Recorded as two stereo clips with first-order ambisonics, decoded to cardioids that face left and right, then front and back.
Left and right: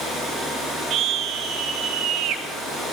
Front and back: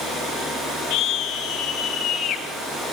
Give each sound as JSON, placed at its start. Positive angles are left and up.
{"t": 0.9, "sound": "a scream", "azimuth_deg": -45, "distance_m": 5.5}